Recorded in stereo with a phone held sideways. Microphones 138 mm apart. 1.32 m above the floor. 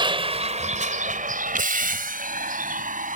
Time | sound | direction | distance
0.0 | a vehicle | 35° right (ahead or behind) | ?